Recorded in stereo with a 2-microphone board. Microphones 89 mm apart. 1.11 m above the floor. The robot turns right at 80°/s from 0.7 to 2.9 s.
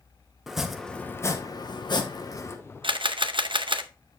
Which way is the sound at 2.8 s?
70° right (ahead or behind).